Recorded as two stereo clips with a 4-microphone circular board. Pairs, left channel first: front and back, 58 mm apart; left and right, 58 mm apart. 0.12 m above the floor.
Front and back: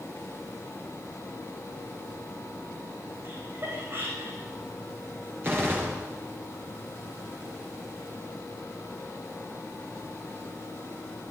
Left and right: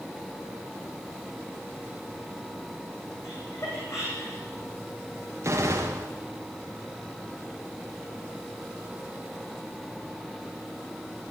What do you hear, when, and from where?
3.2 s laughter: 125° left, 9.5 m
5.4 s a gunshot: 130° right, 8.5 m